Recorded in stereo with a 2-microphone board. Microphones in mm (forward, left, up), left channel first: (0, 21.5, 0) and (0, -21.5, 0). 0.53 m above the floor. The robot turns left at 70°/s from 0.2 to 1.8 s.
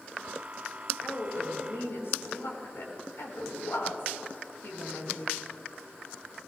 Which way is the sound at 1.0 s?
140° left.